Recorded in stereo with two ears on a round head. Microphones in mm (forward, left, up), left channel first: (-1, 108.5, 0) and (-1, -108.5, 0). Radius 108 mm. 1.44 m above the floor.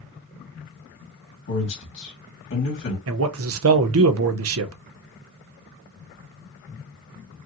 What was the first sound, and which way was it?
A man speaking, 55° left (ahead or behind).